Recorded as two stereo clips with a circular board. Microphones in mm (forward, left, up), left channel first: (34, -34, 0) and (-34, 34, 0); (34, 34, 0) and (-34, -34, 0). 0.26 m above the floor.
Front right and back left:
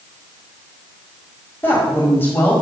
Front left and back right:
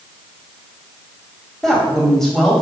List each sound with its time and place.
1.6 s a woman speaking: 35° right, 1.6 m